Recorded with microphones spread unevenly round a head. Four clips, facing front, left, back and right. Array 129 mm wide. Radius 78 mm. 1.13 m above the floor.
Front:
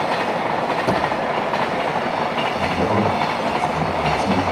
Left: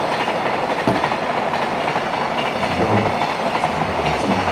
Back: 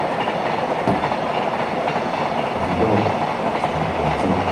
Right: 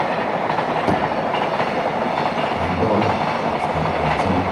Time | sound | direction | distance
0.9 | a thud | 135° left | 5 m
2.5 | a man speaking | 160° left | 3.5 m